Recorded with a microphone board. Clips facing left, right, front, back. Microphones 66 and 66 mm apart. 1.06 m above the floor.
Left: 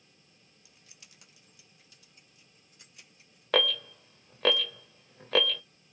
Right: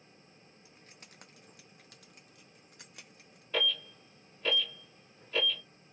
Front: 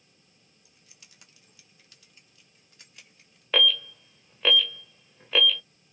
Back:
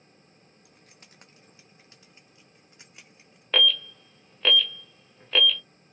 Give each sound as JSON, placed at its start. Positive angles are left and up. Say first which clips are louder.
{"t": 0.7, "sound": "keys jangling", "louder": "right 4 dB, back 4 dB", "azimuth_deg": -145, "distance_m": 0.5}
{"t": 3.5, "sound": "an alarm", "louder": "left 6 dB, even", "azimuth_deg": 85, "distance_m": 1.0}